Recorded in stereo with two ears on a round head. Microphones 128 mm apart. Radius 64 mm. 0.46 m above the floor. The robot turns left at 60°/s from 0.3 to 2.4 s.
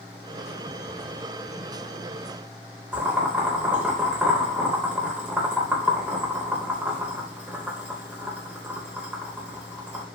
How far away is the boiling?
About 0.6 m.